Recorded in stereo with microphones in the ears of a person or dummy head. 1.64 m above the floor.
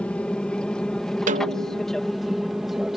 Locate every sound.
0.0 s an aircraft: centre (ahead or behind); by 3.0 s 5° right (ahead or behind)
1.3 s a snare drum: 40° right (ahead or behind)